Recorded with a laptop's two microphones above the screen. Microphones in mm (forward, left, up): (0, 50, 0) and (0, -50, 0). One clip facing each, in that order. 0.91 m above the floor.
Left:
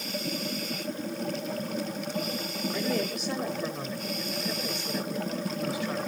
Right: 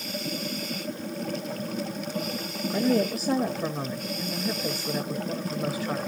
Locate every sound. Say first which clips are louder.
2.7 s a woman speaking: right 7 dB; 40° right (ahead or behind), 1.5 m